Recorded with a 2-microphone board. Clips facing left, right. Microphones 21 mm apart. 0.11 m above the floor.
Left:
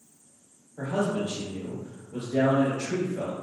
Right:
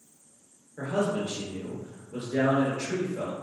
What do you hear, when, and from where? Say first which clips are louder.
0.8 s a man speaking: even; 35° right (ahead or behind), 1.6 m